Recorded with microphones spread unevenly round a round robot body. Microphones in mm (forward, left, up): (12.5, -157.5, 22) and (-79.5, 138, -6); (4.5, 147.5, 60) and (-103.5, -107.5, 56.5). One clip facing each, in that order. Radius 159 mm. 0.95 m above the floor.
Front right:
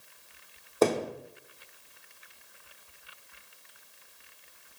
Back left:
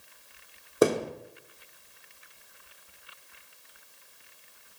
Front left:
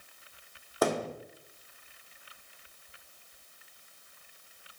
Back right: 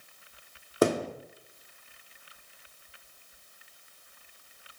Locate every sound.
0.8 s a thud: 175° right, 1.2 m